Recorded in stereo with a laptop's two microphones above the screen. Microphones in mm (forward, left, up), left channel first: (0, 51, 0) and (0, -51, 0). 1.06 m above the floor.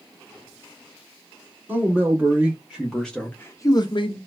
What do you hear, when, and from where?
1.7 s a man speaking: 20° right (ahead or behind), 1.7 m; by 4.2 s 60° left (ahead or behind), 0.8 m